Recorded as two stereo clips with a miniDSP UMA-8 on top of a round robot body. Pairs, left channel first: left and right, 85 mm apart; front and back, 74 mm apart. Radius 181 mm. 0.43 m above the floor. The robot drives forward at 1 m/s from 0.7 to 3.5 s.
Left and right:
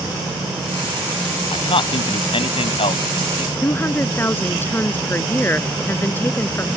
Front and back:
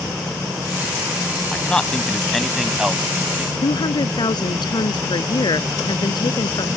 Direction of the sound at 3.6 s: 20° left.